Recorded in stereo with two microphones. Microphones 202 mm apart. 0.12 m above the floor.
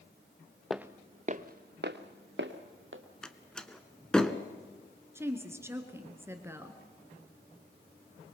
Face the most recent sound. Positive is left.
turn(degrees=-10)  # may be behind; listen again after turning